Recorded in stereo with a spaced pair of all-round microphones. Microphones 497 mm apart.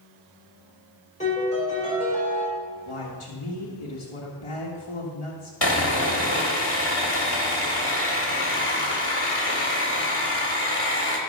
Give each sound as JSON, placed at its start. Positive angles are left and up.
{"t": 1.2, "sound": "a piano", "side_deg": 15, "distance_m": 5.0}
{"t": 2.9, "sound": "a woman speaking", "side_deg": 85, "distance_m": 1.6}
{"t": 5.6, "sound": "sawing", "side_deg": 50, "distance_m": 2.5}